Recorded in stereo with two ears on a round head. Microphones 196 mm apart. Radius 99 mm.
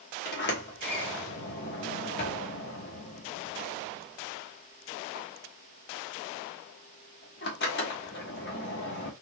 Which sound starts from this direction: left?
A sliding door, at 0.2 s.